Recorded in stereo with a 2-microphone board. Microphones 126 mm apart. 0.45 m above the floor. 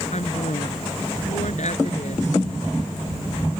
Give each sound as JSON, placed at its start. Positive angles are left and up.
{"t": 0.1, "sound": "a woman speaking", "side_deg": 70}